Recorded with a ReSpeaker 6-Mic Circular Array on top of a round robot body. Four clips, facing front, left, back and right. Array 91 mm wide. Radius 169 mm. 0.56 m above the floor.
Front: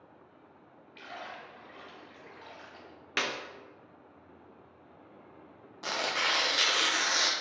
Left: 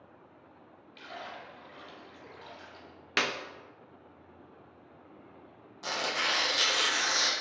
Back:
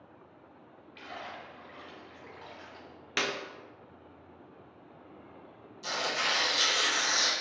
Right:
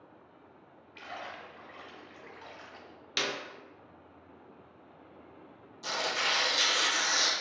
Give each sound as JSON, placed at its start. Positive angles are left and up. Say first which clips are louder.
{"t": 0.9, "sound": "a splash", "louder": "right 1 dB, back 1 dB", "azimuth_deg": -95, "distance_m": 1.3}
{"t": 3.2, "sound": "a clap", "louder": "left 3 dB, back 1 dB", "azimuth_deg": 80, "distance_m": 0.5}
{"t": 5.8, "sound": "tearing paper", "louder": "even, even", "azimuth_deg": 25, "distance_m": 0.7}